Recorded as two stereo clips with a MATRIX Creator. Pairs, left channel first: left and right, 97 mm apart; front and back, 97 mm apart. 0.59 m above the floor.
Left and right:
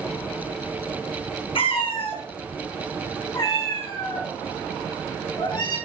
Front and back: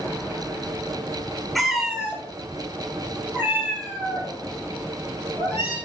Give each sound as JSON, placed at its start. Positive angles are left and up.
{"t": 1.6, "sound": "a cat meowing", "azimuth_deg": 90, "distance_m": 1.3}